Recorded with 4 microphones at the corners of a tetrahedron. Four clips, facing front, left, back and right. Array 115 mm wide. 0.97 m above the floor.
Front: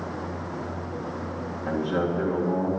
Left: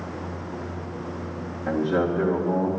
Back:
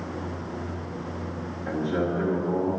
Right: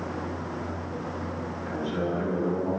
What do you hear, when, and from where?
1.7 s a man speaking: 65° left, 1.8 m; by 2.7 s 85° left, 2 m